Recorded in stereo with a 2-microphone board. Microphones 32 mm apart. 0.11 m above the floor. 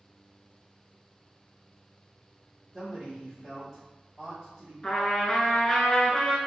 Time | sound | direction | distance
2.7 | a man speaking | 5° right (ahead or behind) | 1.4 m
4.8 | a trumpet | 25° left (ahead or behind) | 0.6 m